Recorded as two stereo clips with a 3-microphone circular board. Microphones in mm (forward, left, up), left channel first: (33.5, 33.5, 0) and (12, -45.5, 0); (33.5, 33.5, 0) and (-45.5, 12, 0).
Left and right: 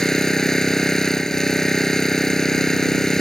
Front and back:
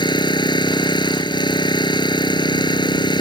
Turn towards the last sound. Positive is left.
turn(degrees=-10)